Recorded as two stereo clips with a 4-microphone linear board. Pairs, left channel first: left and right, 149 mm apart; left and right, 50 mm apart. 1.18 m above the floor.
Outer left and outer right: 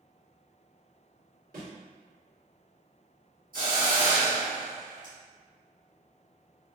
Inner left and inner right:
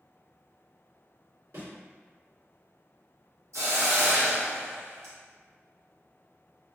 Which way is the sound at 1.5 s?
75° right (ahead or behind).